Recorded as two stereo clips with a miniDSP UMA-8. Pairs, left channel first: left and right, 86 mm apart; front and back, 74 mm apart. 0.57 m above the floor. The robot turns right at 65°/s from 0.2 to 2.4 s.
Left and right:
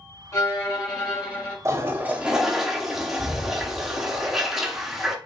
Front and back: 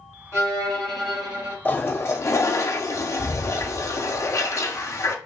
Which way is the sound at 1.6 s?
55° right.